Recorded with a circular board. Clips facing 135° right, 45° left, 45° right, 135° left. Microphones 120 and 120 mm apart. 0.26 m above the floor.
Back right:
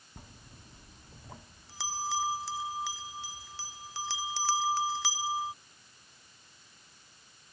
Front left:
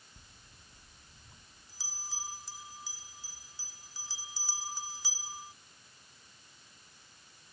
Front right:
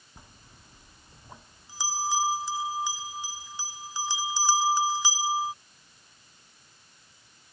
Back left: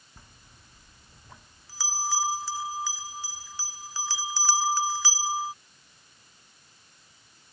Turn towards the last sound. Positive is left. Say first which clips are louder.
# back right 8 dB, front right 3 dB
turn(degrees=-115)